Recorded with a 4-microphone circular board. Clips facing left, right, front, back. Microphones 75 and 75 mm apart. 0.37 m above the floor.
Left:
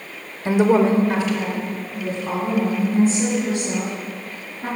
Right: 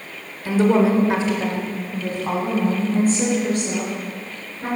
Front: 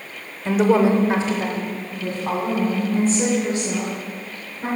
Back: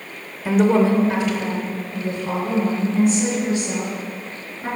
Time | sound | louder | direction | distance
0.5 | a woman speaking | left 1 dB, even | 105° left | 0.9 m